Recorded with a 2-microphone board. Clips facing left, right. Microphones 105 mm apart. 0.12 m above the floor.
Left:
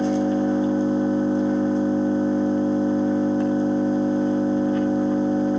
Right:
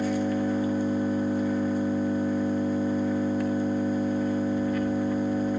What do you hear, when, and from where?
0.0 s an engine running: 25° left (ahead or behind), 1.6 m